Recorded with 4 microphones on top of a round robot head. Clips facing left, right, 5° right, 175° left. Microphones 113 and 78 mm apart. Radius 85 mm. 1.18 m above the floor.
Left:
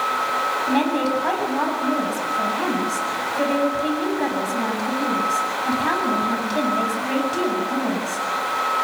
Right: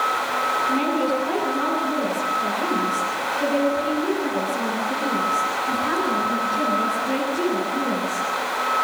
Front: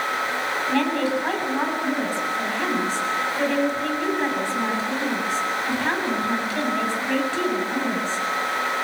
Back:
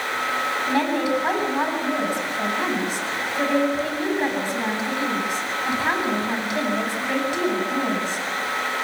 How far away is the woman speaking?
About 8.5 m.